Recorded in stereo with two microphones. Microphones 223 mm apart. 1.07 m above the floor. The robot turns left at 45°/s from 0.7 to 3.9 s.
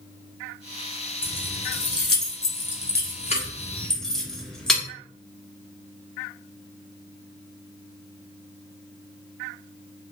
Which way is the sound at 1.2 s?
55° left (ahead or behind).